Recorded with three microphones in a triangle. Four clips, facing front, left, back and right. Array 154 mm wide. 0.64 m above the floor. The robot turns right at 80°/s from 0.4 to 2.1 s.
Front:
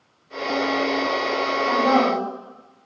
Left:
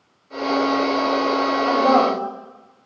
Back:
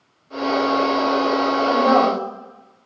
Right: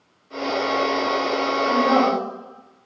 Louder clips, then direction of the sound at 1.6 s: Left 1 dB, back 2 dB; 100° left.